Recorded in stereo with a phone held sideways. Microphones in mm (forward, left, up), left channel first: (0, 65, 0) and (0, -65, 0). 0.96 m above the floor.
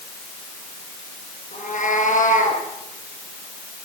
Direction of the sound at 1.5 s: 80° left.